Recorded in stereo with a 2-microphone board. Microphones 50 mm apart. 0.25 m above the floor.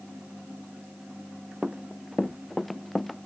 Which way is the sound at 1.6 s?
10° right (ahead or behind).